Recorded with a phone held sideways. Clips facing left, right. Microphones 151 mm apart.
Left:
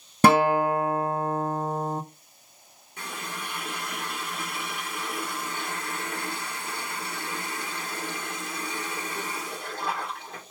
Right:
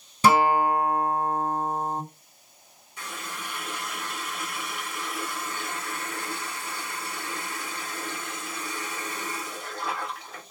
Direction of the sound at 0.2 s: 60° left (ahead or behind).